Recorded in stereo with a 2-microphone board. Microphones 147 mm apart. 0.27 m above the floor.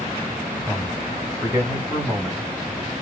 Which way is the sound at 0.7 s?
5° left (ahead or behind).